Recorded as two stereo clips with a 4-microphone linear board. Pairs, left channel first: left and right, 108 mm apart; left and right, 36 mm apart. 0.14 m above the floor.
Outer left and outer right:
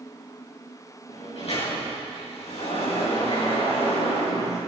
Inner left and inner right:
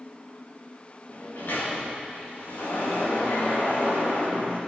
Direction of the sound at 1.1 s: 70° left (ahead or behind).